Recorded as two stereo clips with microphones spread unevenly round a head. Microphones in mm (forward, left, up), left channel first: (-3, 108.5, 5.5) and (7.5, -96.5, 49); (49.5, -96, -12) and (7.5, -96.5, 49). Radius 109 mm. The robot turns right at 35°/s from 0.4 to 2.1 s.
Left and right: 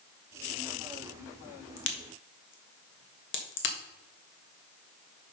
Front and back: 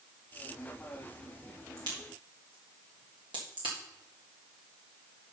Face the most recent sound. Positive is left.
turn(degrees=120)